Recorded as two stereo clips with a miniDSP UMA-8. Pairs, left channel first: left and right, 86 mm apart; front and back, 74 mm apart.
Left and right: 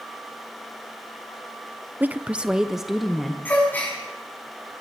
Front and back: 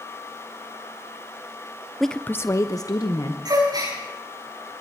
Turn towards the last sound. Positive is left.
turn(degrees=160)